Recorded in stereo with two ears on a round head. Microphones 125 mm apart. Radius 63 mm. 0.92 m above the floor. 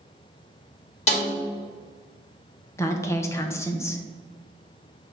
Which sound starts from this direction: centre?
A woman speaking, at 2.8 s.